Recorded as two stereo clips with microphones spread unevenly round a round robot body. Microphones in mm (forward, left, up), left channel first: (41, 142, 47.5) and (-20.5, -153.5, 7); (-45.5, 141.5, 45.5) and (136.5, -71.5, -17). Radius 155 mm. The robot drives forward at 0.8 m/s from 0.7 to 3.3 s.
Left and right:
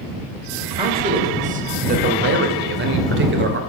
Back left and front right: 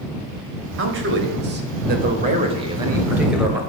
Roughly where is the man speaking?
Ahead right.